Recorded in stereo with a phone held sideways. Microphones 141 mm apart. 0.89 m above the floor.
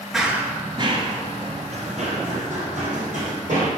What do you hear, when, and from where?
0.1 s running footsteps: centre (ahead or behind), 0.9 m; by 3.7 s 60° right (ahead or behind), 3 m